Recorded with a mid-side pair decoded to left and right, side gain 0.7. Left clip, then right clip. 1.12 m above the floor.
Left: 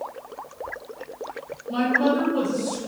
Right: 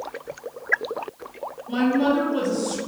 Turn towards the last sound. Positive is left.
turn(degrees=-70)